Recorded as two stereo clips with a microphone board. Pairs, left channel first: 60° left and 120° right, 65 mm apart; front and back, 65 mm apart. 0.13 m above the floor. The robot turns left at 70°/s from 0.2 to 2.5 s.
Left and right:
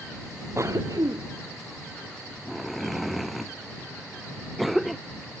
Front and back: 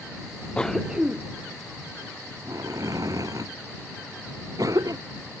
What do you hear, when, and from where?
0.6 s a cough: 75° right; by 5.0 s 150° left